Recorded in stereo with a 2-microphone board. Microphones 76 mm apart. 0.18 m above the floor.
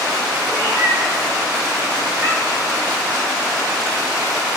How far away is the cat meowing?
About 4 m.